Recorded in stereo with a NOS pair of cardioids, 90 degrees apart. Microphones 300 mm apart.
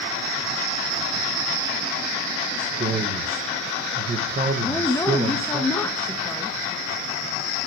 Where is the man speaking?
30° right, 2.5 m.